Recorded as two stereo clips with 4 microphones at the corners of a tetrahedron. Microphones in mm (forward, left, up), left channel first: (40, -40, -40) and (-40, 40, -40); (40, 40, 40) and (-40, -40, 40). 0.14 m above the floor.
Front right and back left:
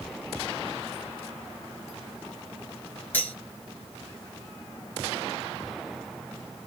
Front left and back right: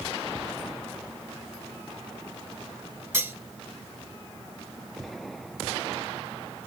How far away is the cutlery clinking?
About 0.8 m.